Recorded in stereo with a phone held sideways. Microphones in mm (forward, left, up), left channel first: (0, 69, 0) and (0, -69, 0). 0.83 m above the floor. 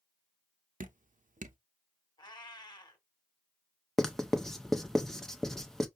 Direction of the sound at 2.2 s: 30° left (ahead or behind).